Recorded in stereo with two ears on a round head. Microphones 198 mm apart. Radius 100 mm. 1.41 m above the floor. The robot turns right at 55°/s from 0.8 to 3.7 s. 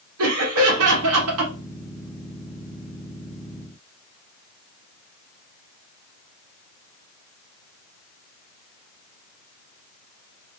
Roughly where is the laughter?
Right.